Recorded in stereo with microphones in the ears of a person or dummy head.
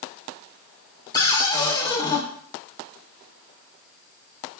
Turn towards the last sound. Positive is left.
turn(degrees=25)  # may be behind; listen again after turning